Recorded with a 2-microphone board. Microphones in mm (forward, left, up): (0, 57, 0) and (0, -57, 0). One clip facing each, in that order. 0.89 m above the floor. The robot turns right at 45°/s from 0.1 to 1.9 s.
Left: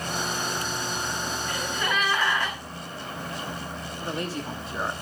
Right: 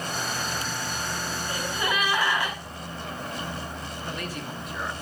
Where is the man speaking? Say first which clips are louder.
Left 5 dB; 30° left (ahead or behind), 1.2 m.